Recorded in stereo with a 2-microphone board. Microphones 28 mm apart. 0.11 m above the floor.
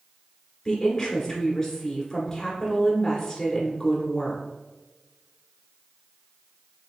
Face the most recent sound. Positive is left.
turn(degrees=15)  # may be behind; listen again after turning